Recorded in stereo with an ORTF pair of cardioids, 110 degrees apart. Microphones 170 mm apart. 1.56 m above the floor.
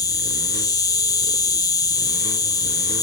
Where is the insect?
25° left.